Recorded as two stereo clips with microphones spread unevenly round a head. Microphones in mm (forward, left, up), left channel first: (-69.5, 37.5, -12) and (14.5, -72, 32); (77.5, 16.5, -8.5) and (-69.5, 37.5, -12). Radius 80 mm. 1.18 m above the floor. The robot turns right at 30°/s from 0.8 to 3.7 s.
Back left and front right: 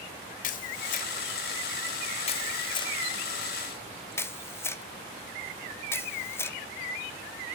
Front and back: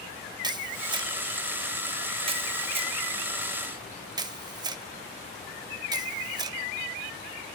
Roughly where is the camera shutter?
Behind left.